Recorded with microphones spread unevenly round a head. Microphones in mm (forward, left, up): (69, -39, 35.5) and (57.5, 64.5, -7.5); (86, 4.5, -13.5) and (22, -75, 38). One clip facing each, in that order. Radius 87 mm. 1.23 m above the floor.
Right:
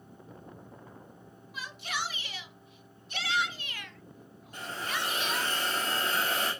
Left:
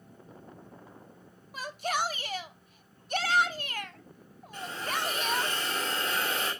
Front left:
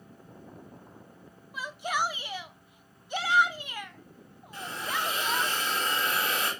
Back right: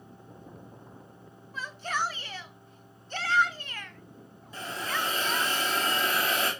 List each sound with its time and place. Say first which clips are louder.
1.5 s a shout: left 6 dB, front left 2 dB; 115° left, 0.7 m
4.5 s a hiss: left 2 dB, even; 150° right, 3.5 m